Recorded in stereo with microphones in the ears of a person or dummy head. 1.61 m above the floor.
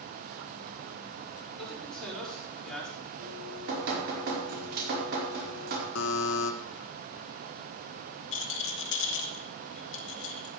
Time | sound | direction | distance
1.6 | a man speaking | 5° left (ahead or behind) | 5 m
3.2 | dripping | 55° right (ahead or behind) | 4.5 m
6.0 | a buzzer | 75° left (ahead or behind) | 1.2 m
8.3 | a rattle | 65° left (ahead or behind) | 1.4 m